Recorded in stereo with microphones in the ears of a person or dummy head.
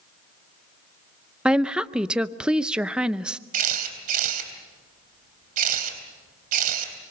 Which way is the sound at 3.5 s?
45° right (ahead or behind).